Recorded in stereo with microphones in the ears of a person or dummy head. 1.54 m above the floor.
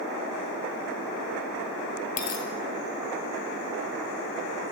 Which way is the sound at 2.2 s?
50° left (ahead or behind).